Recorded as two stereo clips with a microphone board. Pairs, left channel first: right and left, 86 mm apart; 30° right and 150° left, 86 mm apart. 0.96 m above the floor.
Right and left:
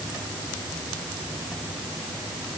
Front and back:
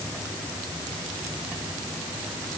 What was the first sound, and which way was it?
Only background noise.